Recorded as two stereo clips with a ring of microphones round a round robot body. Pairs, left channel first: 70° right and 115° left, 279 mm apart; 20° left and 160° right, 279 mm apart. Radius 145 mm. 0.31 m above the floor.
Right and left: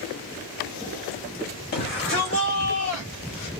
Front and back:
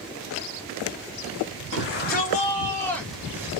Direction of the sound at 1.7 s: 20° right.